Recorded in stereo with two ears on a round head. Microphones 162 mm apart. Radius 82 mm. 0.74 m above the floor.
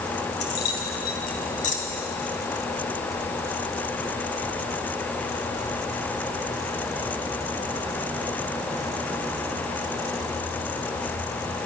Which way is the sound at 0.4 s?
75° left (ahead or behind).